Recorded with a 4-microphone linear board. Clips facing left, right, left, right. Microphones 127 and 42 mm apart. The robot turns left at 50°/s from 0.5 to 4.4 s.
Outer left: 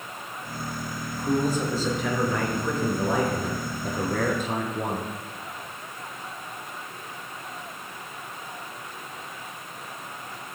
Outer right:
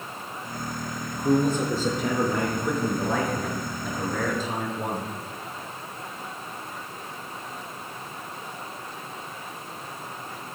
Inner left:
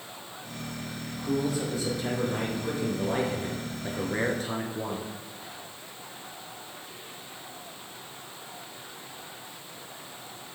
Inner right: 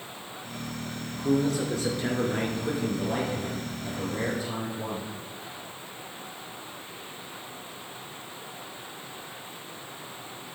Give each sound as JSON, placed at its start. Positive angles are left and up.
{"t": 1.1, "sound": "a man speaking", "azimuth_deg": -85, "distance_m": 2.5}